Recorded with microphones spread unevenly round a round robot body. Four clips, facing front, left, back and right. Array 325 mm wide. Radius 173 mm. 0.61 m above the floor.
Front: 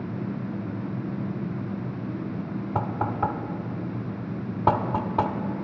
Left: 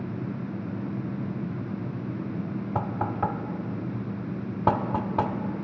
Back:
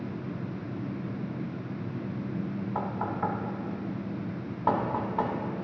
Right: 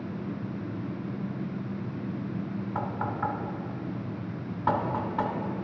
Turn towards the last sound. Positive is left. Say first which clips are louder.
# left 3 dB, front 5 dB
turn(degrees=55)